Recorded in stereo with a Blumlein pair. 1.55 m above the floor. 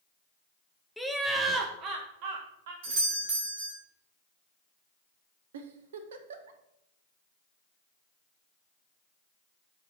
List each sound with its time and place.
1.0 s laughter: straight ahead, 0.8 m; by 2.7 s 55° right, 1.2 m
2.8 s a doorbell: 50° right, 3 m
5.5 s a giggle: 60° right, 0.9 m